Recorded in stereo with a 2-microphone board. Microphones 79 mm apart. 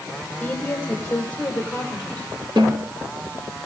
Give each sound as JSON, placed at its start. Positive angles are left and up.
{"t": 0.4, "sound": "a woman speaking", "side_deg": 20, "distance_m": 4.5}
{"t": 2.6, "sound": "a snare drum", "side_deg": -70, "distance_m": 5.0}